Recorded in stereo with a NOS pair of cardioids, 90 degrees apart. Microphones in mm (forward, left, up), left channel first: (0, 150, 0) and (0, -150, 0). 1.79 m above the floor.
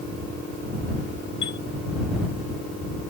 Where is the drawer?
I don't hear a drawer.